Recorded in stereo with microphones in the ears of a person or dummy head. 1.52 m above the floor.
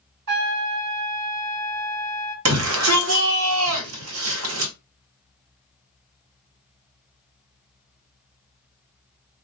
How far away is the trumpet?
About 1.1 m.